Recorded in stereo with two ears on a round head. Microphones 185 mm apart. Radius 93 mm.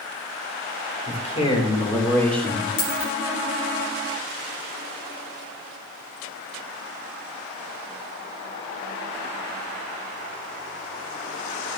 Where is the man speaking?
35° left (ahead or behind), 4 m; by 2.7 s centre (ahead or behind), 3.5 m.